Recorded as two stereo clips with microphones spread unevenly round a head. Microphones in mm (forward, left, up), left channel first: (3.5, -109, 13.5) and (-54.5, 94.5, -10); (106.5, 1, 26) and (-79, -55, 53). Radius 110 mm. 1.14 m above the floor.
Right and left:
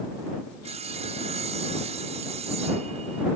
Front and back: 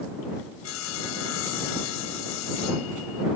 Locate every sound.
0.6 s sawing: 40° left